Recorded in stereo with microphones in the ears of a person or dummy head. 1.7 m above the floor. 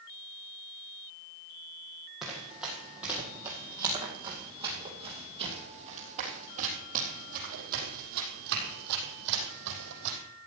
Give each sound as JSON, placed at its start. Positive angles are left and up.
{"t": 2.2, "sound": "running footsteps", "side_deg": -5, "distance_m": 4.0}